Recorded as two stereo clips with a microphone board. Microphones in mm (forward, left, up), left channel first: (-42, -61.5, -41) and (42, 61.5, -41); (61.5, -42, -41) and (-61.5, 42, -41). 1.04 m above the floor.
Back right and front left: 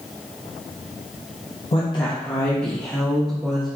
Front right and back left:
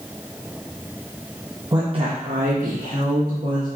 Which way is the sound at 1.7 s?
155° right.